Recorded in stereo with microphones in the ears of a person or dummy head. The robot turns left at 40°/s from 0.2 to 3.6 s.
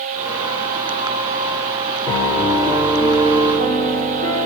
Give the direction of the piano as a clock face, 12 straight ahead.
11 o'clock.